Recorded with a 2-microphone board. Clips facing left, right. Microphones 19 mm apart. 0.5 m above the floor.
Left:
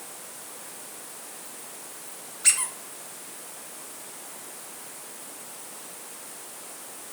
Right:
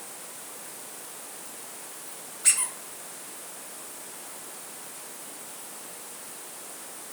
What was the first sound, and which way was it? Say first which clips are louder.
A squeak: left 2 dB; 35° left (ahead or behind).